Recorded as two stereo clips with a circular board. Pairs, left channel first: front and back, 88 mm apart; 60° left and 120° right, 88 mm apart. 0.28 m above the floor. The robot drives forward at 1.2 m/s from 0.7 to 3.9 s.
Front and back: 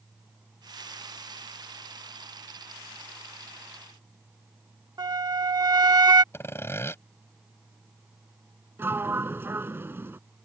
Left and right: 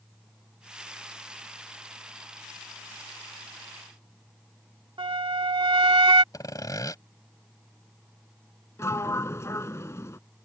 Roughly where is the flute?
Behind right.